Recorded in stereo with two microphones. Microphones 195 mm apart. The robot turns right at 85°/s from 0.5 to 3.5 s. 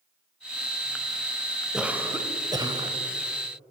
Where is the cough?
5° right (ahead or behind), 0.9 m; by 2.9 s 20° right (ahead or behind), 0.9 m.